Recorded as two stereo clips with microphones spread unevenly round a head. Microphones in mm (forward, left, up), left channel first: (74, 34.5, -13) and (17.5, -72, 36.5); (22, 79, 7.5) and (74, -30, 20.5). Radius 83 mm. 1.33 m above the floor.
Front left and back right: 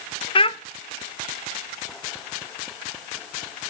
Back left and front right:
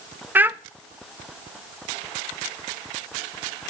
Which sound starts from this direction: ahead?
A child speaking, at 0.3 s.